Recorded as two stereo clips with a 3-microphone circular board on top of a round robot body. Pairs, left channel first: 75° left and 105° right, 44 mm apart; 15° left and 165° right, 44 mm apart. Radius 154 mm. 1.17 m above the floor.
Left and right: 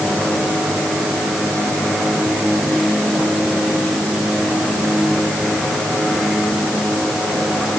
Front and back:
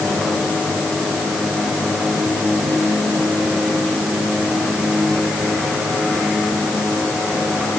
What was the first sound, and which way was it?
Only background noise.